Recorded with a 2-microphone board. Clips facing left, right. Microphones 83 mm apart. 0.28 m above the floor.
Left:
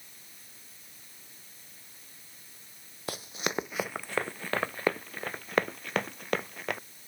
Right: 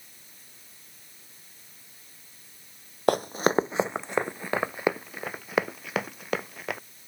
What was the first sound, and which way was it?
Running footsteps, 55° right (ahead or behind).